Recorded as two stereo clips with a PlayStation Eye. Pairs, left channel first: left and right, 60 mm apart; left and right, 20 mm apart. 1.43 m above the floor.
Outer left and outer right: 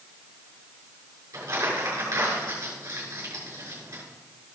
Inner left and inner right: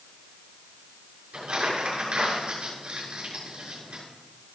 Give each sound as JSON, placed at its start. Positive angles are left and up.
{"t": 1.3, "sound": "crumpling", "side_deg": -80, "distance_m": 6.5}